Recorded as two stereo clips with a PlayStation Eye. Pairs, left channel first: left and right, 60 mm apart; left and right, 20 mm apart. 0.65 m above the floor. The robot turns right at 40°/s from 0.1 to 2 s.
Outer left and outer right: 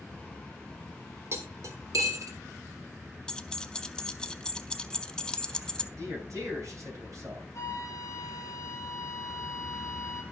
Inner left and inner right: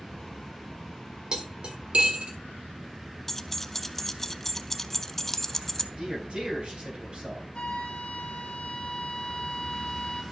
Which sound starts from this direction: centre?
Keys jangling, at 3.3 s.